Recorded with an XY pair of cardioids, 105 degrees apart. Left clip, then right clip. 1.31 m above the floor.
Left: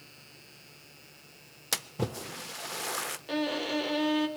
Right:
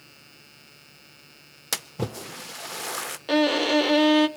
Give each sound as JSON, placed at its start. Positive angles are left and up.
{"t": 1.7, "sound": "a splash", "azimuth_deg": -15, "distance_m": 0.6}
{"t": 3.3, "sound": "a violin", "azimuth_deg": -60, "distance_m": 0.6}